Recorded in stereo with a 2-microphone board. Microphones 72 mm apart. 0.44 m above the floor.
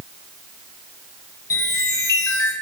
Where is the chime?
55° left (ahead or behind), 0.6 m.